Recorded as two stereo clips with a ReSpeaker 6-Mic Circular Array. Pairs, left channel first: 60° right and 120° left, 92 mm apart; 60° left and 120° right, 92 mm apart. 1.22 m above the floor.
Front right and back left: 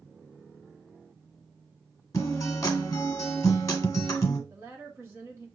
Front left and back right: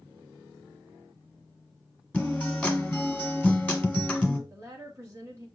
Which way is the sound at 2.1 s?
10° right.